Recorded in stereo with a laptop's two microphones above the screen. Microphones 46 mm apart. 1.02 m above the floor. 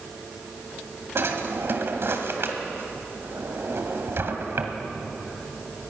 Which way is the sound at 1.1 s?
60° right (ahead or behind).